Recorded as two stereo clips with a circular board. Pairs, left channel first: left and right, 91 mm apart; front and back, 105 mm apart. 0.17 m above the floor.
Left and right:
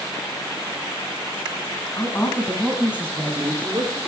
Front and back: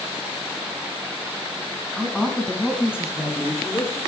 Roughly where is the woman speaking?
Left.